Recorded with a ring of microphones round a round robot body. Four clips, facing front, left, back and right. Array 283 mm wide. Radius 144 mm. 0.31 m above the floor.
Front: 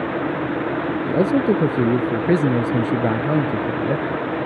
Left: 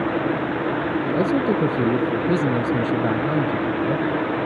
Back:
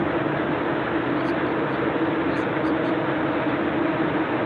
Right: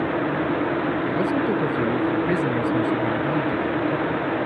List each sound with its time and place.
1.1 s a man speaking: 15° left